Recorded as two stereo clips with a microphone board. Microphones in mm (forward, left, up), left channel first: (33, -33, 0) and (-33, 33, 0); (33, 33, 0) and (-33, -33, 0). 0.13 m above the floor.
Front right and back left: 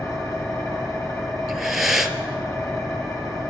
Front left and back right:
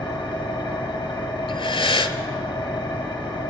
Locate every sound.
0.0 s an engine running: 10° left, 1.8 m
1.5 s breathing: 45° left, 0.6 m